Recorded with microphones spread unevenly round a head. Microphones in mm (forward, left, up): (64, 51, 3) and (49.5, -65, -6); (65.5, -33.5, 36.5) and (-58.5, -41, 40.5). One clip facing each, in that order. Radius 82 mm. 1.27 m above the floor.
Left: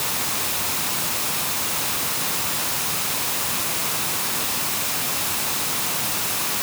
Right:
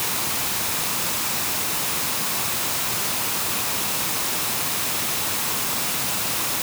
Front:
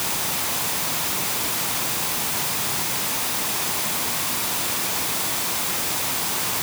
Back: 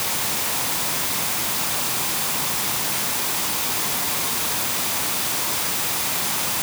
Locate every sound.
Only background noise.